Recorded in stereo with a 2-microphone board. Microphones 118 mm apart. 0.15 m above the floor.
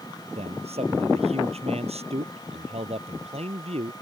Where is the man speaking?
60° right (ahead or behind).